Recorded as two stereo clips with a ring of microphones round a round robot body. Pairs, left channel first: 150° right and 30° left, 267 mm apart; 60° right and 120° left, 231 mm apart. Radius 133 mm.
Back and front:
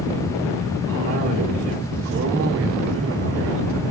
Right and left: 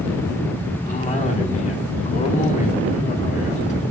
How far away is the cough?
About 2.5 m.